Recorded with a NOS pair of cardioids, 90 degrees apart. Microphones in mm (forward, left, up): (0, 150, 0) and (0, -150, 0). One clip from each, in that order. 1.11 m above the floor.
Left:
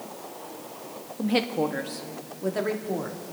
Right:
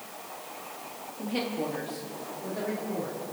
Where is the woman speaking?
45° left, 1.3 m; by 3.2 s 70° left, 2.5 m.